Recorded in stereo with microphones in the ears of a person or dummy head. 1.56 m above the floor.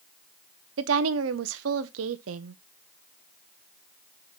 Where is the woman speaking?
80° right, 0.8 m.